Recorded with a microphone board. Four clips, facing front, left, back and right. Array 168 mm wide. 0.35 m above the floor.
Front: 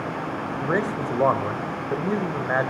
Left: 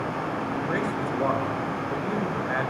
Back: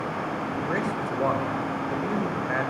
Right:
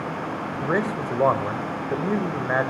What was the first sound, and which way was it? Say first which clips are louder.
A man speaking: right 2 dB, front 6 dB; 50° right.